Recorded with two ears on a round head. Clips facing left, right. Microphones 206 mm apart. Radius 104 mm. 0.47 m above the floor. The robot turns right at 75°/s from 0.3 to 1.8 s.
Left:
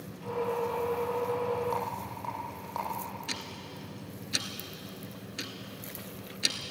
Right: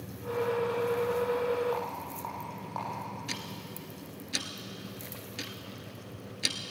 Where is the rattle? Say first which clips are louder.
Even; 45° left (ahead or behind), 8 m; by 3.1 s 40° left (ahead or behind), 8 m.